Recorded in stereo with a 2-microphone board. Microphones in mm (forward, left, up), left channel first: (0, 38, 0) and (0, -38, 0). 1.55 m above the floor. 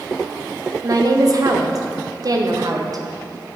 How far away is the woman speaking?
About 0.7 m.